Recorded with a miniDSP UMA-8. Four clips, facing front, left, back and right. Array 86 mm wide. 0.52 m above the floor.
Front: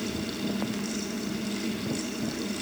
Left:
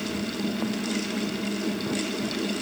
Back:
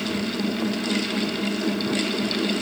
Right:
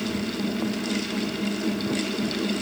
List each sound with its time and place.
Only background noise.